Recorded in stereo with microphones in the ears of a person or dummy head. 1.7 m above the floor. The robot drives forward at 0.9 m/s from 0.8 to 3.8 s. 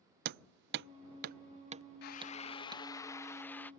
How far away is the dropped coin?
I don't hear a dropped coin.